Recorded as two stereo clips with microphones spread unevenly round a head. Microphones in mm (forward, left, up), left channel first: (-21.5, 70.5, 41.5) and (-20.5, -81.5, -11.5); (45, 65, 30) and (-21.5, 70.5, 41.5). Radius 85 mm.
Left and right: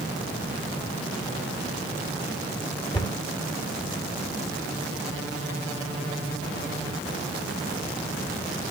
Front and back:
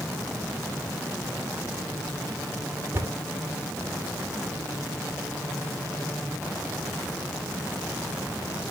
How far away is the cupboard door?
About 2 m.